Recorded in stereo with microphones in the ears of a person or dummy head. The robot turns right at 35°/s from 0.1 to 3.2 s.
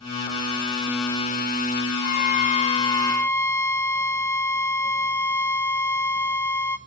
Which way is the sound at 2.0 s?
125° left.